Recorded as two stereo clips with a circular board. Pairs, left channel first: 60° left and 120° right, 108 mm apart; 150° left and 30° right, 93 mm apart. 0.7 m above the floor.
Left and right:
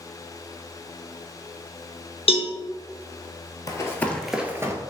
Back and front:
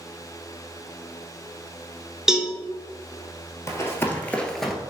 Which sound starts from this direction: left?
Running footsteps, at 3.7 s.